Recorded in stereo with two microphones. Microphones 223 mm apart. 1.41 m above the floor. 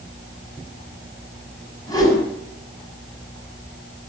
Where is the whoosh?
15° left (ahead or behind), 10 m.